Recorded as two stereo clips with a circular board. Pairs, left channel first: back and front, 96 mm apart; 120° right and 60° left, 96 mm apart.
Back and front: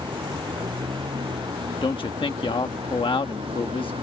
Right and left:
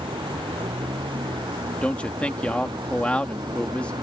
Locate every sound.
0.0 s a vehicle: 35° left; by 4.0 s 20° left
1.8 s a man speaking: 165° left